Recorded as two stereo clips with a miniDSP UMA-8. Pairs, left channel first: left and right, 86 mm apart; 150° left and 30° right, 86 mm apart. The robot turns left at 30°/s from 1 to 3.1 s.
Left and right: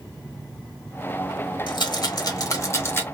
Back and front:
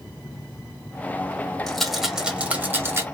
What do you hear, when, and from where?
1.7 s a rattle: 65° left, 0.9 m; by 3.0 s 25° left, 0.9 m